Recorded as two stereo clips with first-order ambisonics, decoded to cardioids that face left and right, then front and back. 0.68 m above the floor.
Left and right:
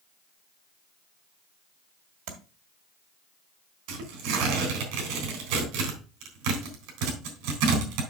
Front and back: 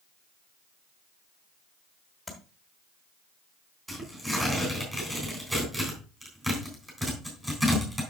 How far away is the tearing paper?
About 3.5 m.